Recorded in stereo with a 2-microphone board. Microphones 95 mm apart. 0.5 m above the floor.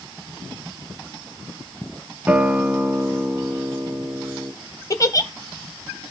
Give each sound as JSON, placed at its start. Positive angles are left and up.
{"t": 2.3, "sound": "a guitar", "side_deg": -15, "distance_m": 0.7}
{"t": 4.9, "sound": "a giggle", "side_deg": 35, "distance_m": 0.7}